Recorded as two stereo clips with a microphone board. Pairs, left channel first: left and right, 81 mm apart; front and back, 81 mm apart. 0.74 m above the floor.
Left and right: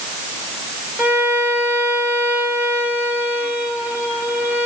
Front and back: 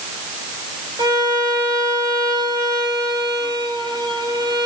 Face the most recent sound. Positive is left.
turn(degrees=-160)